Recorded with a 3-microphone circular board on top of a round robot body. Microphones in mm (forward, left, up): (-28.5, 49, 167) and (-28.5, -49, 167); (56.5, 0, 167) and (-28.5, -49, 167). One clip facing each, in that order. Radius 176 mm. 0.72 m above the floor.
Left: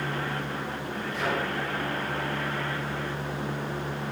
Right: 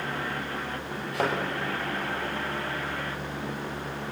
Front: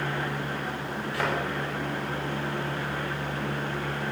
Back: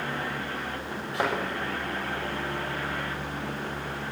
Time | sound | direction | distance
1.1 | a thud | 85° right | 8.5 m